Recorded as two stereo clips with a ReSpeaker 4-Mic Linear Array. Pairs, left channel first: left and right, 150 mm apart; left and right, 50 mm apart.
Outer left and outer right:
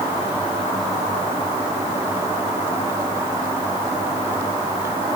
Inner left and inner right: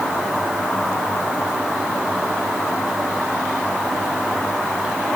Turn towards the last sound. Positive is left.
No sound to turn to.